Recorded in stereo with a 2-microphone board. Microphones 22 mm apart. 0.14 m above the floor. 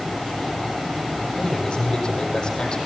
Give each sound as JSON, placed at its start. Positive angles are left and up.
{"t": 1.3, "sound": "a man speaking", "side_deg": 35, "distance_m": 4.0}